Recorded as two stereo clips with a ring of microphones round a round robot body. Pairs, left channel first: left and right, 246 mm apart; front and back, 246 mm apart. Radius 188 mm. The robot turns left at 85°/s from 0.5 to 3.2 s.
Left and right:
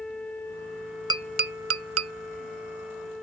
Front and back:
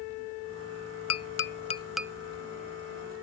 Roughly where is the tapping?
Ahead.